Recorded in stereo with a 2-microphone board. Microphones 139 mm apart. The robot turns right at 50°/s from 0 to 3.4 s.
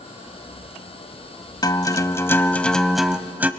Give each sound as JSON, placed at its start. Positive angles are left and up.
{"t": 1.6, "sound": "a guitar", "azimuth_deg": 115, "distance_m": 0.7}